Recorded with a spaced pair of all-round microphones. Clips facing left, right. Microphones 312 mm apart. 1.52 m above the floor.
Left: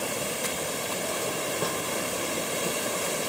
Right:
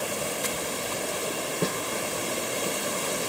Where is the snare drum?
30° right (ahead or behind), 0.5 m.